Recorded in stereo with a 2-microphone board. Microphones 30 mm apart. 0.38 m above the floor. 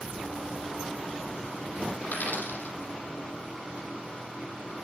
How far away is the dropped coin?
About 4 m.